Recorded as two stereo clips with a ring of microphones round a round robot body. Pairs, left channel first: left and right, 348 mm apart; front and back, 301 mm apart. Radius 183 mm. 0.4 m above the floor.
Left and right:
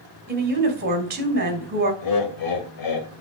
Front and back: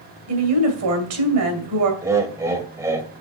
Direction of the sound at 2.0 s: 100° left.